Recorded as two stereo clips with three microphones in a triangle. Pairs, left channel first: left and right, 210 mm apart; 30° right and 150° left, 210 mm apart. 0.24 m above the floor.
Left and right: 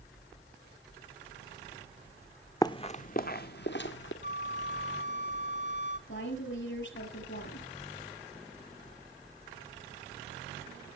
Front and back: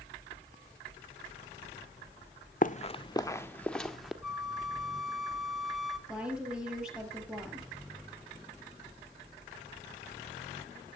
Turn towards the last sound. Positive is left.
turn(degrees=65)